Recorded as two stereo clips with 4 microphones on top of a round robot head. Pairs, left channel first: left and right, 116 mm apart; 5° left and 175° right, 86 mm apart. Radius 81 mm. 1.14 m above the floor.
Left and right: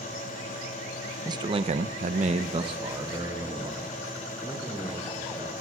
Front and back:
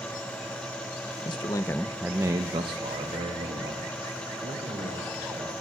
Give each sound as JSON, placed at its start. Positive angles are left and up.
{"t": 1.2, "sound": "a man speaking", "azimuth_deg": -35, "distance_m": 1.0}